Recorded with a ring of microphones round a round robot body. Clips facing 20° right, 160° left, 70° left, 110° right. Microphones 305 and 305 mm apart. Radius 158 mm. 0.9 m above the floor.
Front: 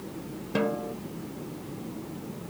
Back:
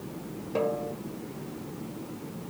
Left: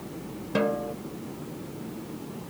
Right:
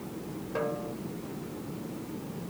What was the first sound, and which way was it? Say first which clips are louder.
A snare drum: front 1 dB, left 7 dB; 35° left.